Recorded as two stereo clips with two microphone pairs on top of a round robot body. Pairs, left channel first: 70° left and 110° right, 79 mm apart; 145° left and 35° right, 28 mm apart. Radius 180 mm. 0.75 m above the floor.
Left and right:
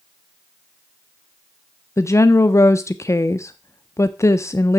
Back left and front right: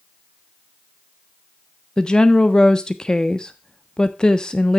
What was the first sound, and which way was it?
A woman speaking, 95° left.